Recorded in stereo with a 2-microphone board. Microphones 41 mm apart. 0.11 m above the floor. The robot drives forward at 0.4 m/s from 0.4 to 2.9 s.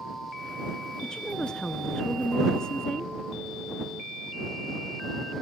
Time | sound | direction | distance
1.0 | a woman speaking | 20° left (ahead or behind) | 1.4 m